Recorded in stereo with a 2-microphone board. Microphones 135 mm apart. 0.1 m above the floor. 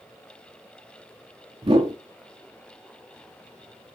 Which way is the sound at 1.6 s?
45° right (ahead or behind).